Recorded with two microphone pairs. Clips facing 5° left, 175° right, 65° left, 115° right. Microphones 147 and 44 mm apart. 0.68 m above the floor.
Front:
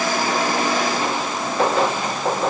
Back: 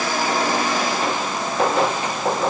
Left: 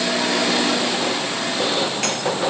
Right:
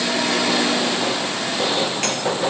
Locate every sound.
Only background noise.